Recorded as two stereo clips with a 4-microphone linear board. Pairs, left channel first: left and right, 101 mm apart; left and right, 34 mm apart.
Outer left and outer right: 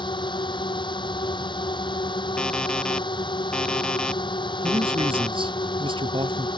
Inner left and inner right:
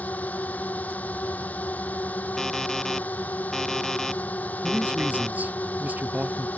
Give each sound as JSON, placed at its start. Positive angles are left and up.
{"t": 0.0, "sound": "a drone", "side_deg": 50}
{"t": 2.4, "sound": "an alarm clock", "side_deg": 10}
{"t": 4.6, "sound": "a man speaking", "side_deg": -60}